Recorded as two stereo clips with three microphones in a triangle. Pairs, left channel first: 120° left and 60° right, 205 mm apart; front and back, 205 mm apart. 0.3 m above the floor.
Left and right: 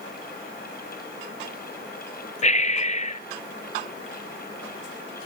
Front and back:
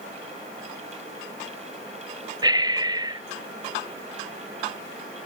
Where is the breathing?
125° left, 0.5 m.